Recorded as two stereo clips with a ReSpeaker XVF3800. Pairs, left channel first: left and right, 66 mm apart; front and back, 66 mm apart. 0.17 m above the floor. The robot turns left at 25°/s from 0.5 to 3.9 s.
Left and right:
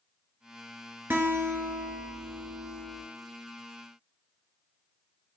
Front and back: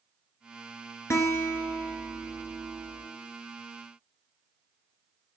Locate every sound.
1.1 s a guitar: 40° right, 0.6 m; by 3.0 s 85° right, 0.6 m